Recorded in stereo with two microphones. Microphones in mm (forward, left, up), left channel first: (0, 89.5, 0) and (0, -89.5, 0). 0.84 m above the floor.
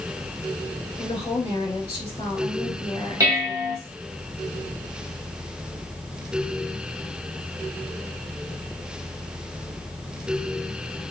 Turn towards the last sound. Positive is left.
turn(degrees=-20)  # may be behind; listen again after turning